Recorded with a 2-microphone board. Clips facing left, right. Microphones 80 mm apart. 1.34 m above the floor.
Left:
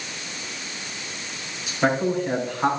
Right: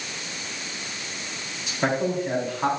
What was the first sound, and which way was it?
A man speaking, centre (ahead or behind).